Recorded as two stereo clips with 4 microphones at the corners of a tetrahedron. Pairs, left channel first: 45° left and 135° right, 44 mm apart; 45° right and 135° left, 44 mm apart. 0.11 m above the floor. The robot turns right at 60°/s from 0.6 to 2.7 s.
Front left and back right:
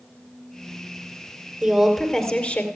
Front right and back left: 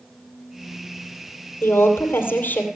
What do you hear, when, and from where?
1.6 s a woman speaking: 60° right, 2.5 m; by 2.6 s straight ahead, 2.5 m